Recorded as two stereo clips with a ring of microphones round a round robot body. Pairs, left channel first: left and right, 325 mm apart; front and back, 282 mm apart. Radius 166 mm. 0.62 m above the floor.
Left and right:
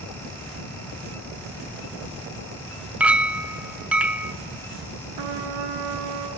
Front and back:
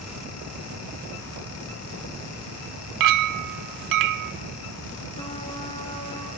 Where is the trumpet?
75° right, 2.5 m.